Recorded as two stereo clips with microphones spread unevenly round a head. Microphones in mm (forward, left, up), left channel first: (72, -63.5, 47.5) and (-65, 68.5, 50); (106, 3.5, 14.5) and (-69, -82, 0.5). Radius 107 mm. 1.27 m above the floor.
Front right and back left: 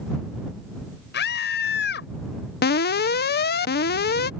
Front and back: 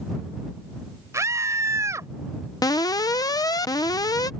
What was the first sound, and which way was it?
A scream, 80° right.